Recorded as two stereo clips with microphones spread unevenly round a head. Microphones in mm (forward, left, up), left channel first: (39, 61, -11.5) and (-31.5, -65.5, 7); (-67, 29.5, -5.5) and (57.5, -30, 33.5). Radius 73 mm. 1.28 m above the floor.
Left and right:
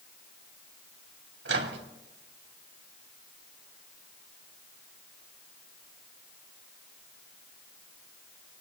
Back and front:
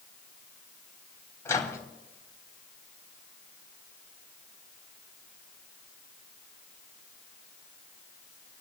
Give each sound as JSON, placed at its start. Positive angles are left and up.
{"t": 1.4, "sound": "a microwave", "azimuth_deg": -130, "distance_m": 3.0}